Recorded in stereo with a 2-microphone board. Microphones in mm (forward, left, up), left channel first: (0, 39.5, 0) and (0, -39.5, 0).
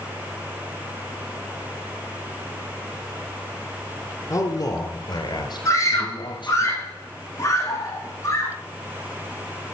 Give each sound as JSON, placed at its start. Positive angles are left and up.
{"t": 4.3, "sound": "a man speaking", "side_deg": 45, "distance_m": 2.5}
{"t": 5.7, "sound": "a scream", "side_deg": 45, "distance_m": 8.5}